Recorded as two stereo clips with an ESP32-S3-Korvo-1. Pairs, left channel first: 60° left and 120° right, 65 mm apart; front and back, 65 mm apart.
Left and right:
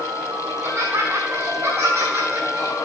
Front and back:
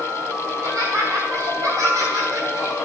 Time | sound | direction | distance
0.5 | laughter | 170° right | 3.5 m